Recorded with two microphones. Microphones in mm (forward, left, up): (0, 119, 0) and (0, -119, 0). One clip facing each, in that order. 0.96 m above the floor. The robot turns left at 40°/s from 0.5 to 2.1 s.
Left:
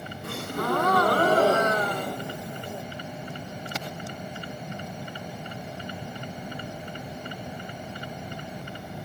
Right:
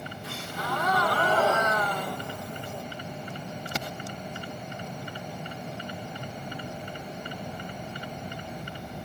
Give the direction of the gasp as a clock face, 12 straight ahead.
9 o'clock.